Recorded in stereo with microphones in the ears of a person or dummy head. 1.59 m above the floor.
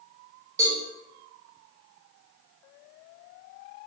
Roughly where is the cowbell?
Centre.